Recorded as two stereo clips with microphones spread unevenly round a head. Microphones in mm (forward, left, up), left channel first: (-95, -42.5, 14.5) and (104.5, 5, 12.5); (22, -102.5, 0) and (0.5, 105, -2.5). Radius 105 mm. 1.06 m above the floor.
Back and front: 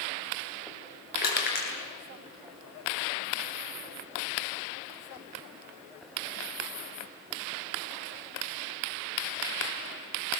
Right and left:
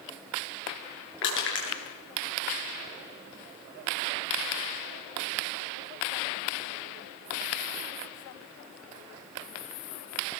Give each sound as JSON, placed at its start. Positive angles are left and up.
{"t": 1.2, "sound": "crushing", "azimuth_deg": -120, "distance_m": 9.5}